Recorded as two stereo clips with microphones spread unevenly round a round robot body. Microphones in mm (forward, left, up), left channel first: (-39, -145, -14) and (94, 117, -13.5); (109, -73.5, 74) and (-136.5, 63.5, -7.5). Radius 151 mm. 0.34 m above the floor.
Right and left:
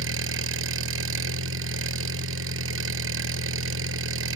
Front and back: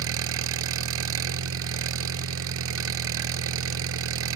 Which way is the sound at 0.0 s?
115° left.